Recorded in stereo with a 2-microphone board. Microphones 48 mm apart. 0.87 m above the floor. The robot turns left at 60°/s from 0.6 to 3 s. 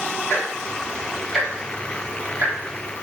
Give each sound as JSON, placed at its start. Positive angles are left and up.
{"t": 0.3, "sound": "ticking", "side_deg": 50, "distance_m": 4.0}